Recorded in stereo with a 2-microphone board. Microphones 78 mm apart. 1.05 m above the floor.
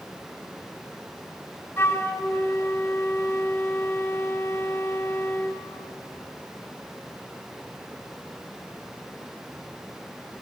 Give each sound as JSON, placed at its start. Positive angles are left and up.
{"t": 1.8, "sound": "a flute", "side_deg": 30, "distance_m": 0.7}